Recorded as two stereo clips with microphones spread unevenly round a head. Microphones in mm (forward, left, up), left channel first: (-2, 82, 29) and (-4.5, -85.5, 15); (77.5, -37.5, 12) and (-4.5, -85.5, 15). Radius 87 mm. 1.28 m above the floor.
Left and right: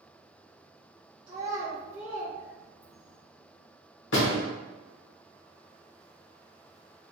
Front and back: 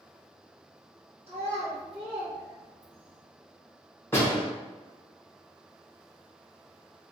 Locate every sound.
1.3 s a child speaking: 160° right, 0.9 m; by 3.2 s 165° left, 1.7 m
4.1 s a door slam: 110° left, 0.9 m